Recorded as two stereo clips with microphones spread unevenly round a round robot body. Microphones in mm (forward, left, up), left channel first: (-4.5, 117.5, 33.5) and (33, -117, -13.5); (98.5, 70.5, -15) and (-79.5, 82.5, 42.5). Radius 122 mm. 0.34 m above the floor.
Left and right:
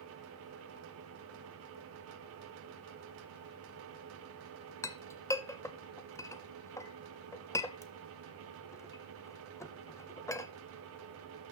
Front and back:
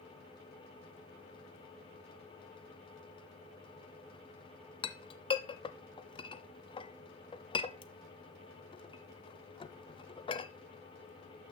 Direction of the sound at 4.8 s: 15° left.